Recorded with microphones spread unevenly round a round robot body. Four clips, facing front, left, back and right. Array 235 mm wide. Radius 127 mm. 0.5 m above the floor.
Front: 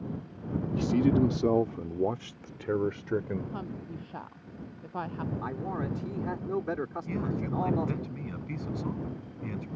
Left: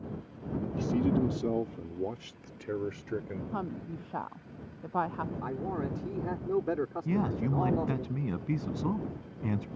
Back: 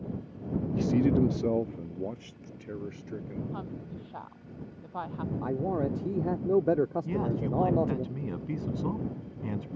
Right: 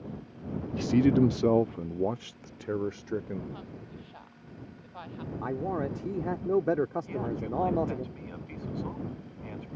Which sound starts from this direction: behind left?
A man speaking, at 7.0 s.